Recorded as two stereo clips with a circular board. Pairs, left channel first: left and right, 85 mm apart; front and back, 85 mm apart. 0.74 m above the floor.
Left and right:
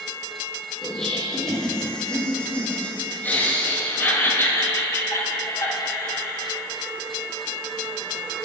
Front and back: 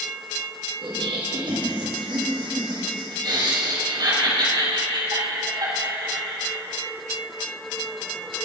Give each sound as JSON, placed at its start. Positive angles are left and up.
{"t": 0.8, "sound": "laughter", "azimuth_deg": 180, "distance_m": 5.0}